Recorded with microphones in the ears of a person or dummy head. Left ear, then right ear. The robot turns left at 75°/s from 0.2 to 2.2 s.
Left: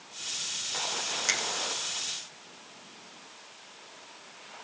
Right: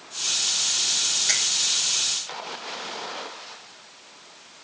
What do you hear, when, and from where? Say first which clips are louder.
1.3 s a finger snap: right 3 dB; 75° left (ahead or behind), 2.5 m; by 1.4 s 85° left, 2.5 m